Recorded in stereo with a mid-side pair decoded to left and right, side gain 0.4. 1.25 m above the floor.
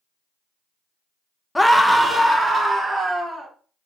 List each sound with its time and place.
1.6 s a scream: 10° left, 0.6 m; by 3.5 s 20° right, 1.9 m